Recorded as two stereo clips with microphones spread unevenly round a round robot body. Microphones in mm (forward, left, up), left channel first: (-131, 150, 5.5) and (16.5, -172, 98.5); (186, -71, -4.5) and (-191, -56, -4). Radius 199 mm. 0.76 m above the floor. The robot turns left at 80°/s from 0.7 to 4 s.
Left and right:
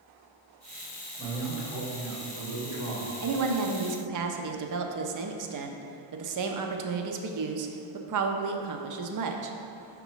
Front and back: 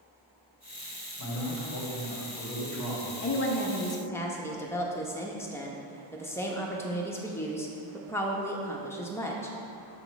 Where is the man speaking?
40° left, 2.5 m; by 3.1 s 115° right, 2.5 m.